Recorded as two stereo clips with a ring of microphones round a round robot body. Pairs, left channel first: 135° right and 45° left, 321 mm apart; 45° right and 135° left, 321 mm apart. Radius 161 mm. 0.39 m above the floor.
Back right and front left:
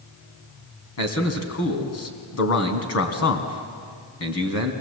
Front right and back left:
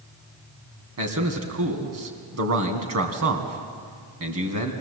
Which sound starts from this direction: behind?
A man speaking, at 1.0 s.